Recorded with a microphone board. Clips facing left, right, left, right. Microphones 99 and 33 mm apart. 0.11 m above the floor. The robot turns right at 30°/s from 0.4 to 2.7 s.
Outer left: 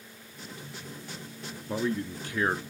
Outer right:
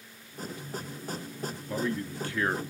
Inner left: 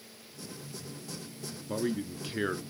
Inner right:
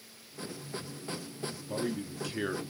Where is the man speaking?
20° left (ahead or behind), 1.1 m; by 2.6 s 15° left (ahead or behind), 1.1 m.